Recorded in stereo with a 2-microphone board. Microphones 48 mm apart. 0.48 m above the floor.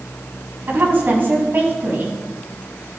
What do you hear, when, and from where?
0.7 s a woman speaking: 45° right (ahead or behind), 4 m